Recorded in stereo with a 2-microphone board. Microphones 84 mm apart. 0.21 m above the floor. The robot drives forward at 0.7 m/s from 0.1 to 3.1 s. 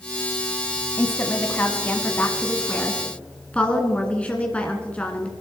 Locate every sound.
1.0 s a woman speaking: 30° left (ahead or behind), 1.2 m; by 5.3 s 15° left (ahead or behind), 2 m